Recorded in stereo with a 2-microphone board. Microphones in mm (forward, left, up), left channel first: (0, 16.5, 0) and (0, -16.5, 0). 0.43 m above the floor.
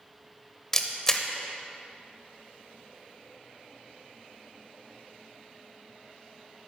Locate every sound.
0.7 s a camera shutter: 15° left (ahead or behind), 0.8 m